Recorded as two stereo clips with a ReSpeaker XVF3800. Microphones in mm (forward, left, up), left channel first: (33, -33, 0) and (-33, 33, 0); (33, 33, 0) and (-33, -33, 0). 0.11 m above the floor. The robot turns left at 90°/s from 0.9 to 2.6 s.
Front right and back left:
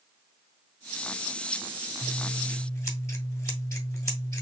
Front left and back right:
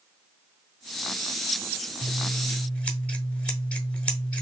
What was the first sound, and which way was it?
Scissors, 35° left.